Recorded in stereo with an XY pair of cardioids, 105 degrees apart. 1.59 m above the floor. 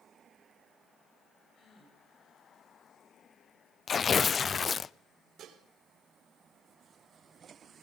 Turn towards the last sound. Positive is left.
turn(degrees=-65)